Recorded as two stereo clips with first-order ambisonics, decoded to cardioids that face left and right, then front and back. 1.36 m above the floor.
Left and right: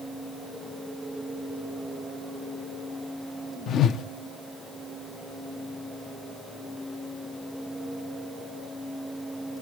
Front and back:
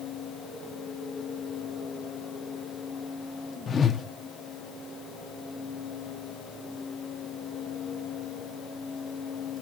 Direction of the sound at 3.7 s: 65° left.